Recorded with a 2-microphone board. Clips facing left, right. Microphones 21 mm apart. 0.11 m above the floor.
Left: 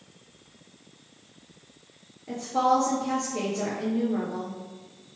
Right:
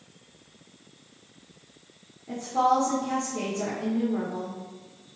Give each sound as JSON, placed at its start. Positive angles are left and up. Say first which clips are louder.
{"t": 2.3, "sound": "a woman speaking", "louder": "even", "side_deg": 40, "distance_m": 1.8}